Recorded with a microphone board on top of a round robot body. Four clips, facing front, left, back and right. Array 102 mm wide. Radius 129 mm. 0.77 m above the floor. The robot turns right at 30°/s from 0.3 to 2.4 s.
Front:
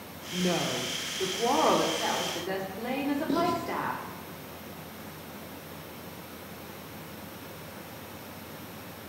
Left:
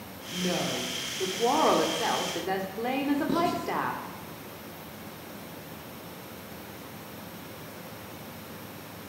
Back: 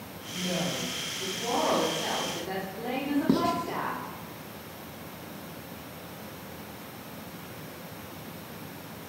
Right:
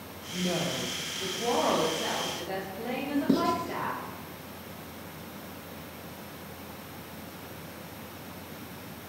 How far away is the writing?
About 2 m.